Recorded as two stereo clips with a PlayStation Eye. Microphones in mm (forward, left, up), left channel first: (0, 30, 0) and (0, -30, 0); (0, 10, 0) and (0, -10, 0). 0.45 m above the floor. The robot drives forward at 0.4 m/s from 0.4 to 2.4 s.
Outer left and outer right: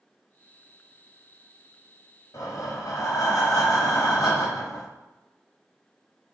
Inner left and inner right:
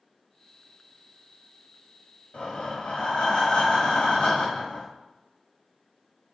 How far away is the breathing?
About 1.1 m.